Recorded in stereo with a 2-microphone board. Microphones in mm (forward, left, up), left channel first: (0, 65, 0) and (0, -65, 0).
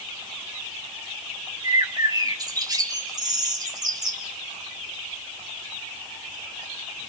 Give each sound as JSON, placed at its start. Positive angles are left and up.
{"t": 1.6, "sound": "a bird", "side_deg": -30, "distance_m": 2.5}